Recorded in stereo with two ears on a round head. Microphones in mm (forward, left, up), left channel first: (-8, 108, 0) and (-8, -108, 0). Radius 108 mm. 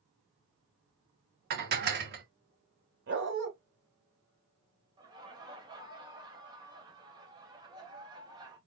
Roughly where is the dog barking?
Right.